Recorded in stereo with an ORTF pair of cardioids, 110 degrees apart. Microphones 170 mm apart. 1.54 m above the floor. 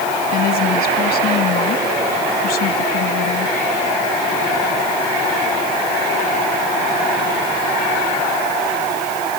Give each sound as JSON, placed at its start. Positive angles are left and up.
{"t": 0.3, "sound": "a woman speaking", "azimuth_deg": 65}